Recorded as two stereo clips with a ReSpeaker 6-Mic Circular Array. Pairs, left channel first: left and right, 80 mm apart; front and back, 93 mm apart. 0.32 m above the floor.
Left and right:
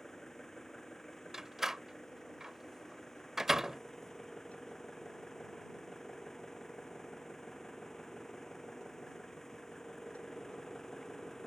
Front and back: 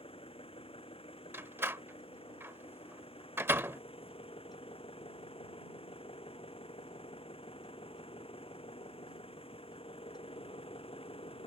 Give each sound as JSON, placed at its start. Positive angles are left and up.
{"t": 0.0, "sound": "an engine running", "azimuth_deg": 5}
{"t": 1.3, "sound": "a door slam", "azimuth_deg": -165}